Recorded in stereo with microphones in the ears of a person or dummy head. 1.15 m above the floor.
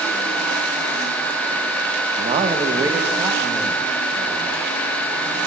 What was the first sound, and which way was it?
A man speaking, 30° right (ahead or behind).